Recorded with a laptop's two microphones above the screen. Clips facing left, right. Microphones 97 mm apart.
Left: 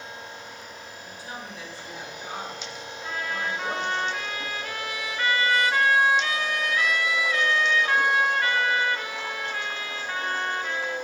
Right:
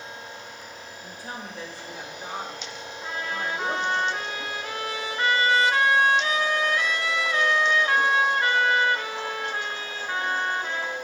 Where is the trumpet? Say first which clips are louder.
Even; 25° right (ahead or behind), 0.9 m.